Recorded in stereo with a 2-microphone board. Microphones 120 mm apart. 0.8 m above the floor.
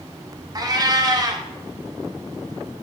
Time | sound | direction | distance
0.6 | a cat meowing | 35° right (ahead or behind) | 0.6 m